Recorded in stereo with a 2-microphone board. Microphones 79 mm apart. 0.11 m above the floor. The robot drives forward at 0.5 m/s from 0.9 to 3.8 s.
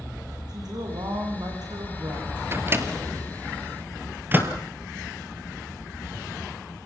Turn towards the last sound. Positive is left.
turn(degrees=-25)  # may be behind; listen again after turning